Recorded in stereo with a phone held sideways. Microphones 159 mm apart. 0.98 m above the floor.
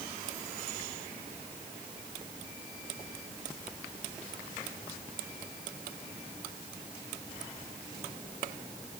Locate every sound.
Only background noise.